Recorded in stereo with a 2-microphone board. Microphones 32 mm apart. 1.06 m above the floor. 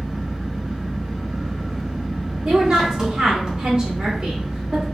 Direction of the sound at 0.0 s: 25° right (ahead or behind).